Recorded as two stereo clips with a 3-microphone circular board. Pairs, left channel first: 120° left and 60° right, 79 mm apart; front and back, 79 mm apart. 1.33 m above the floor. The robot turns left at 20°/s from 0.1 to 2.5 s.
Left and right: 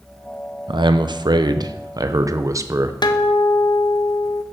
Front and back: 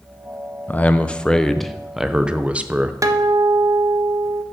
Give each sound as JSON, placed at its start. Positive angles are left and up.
{"t": 0.7, "sound": "a man speaking", "azimuth_deg": -70, "distance_m": 0.5}
{"t": 3.0, "sound": "a guitar", "azimuth_deg": 135, "distance_m": 0.6}